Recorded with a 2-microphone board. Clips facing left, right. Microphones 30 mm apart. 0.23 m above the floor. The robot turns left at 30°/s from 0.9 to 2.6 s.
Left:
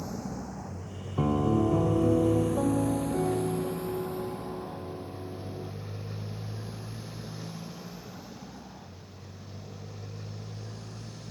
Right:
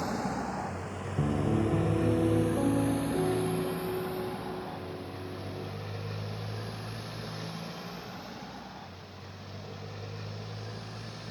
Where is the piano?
65° left; by 5.7 s 20° left.